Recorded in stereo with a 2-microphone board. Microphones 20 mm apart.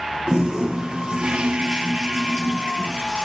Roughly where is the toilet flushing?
Right.